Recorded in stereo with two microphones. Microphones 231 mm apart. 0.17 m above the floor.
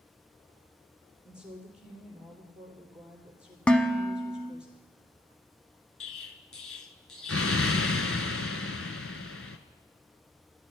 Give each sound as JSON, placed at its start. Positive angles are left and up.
{"t": 1.2, "sound": "a woman speaking", "side_deg": -5, "distance_m": 3.5}
{"t": 3.7, "sound": "dishes clattering", "side_deg": 5, "distance_m": 0.8}
{"t": 6.0, "sound": "an explosion", "side_deg": 70, "distance_m": 0.8}